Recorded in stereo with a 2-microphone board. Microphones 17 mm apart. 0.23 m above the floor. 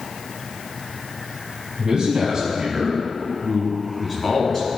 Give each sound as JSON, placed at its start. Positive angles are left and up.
{"t": 1.8, "sound": "a man speaking", "side_deg": -45, "distance_m": 1.5}